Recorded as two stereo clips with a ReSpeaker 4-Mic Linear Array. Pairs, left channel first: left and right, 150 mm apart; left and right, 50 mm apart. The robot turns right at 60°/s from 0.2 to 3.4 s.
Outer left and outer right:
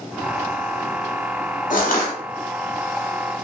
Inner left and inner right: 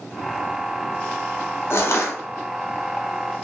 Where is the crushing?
60° left (ahead or behind), 0.7 m; by 2.1 s 75° left (ahead or behind), 0.7 m.